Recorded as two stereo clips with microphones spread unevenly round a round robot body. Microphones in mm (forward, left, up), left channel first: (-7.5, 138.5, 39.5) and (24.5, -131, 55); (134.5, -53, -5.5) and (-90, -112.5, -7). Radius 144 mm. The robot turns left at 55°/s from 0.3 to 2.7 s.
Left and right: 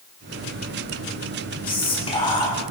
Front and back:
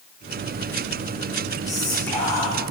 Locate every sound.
1.7 s whispering: 110° left, 0.7 m; by 2.5 s 65° left, 0.7 m